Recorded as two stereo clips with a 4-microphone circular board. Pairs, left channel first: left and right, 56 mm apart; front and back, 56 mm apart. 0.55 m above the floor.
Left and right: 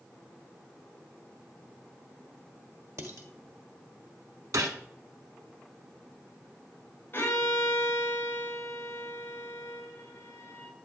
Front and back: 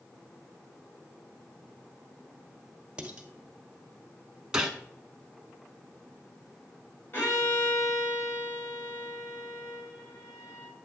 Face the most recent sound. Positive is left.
turn(degrees=40)